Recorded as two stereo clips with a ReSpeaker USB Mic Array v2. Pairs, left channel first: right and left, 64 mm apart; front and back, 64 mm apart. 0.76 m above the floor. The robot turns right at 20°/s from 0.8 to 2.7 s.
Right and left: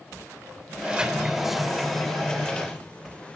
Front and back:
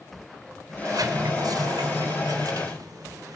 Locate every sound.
0.7 s a sliding door: 160° left, 2.5 m; by 3.4 s 160° right, 2.5 m